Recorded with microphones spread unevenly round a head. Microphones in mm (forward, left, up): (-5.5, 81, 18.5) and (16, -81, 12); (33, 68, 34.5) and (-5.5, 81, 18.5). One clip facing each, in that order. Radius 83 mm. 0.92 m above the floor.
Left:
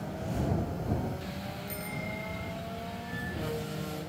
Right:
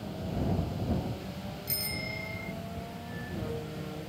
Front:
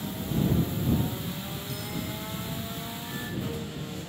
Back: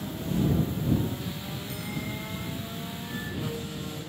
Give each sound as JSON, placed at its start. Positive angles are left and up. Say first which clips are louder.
{"t": 1.7, "sound": "a bicycle bell", "louder": "left 2 dB, back 1 dB", "azimuth_deg": -125}